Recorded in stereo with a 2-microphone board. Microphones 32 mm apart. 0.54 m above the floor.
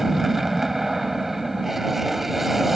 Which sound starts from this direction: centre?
An aircraft, at 0.0 s.